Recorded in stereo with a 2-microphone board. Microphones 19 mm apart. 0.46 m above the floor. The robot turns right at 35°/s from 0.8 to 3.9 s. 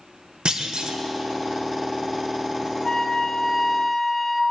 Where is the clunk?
65° right (ahead or behind), 0.7 m.